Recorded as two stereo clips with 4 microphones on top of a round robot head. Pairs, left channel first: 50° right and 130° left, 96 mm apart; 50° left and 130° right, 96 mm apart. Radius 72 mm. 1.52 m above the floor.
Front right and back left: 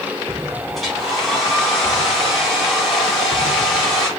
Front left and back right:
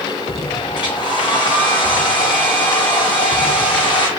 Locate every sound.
0.8 s a hair dryer: 40° left, 1.4 m